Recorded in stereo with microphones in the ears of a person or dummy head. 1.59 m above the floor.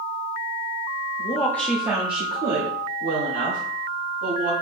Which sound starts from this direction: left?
A woman speaking, at 1.2 s.